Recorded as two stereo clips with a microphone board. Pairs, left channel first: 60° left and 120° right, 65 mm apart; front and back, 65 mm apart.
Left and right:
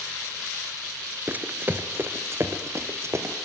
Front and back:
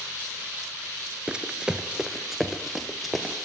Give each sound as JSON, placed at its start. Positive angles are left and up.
{"t": 1.3, "sound": "running footsteps", "azimuth_deg": -125, "distance_m": 1.1}